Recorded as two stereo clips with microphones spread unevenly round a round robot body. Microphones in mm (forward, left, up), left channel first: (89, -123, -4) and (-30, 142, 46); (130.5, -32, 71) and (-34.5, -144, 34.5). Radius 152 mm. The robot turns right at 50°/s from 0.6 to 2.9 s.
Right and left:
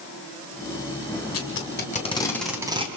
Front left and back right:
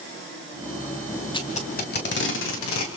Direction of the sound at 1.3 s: 35° right.